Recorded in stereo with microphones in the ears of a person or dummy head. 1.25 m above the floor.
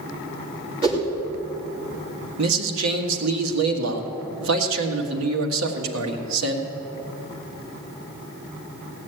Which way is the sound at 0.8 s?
30° right (ahead or behind).